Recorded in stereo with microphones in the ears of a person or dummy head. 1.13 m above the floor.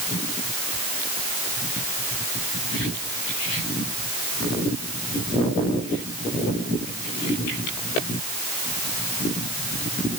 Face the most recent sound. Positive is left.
No sound to turn to.